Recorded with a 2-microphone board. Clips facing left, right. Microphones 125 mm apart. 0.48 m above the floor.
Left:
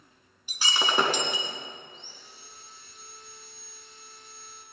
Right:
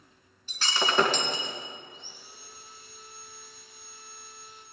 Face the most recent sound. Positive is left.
turn(degrees=-5)  # may be behind; listen again after turning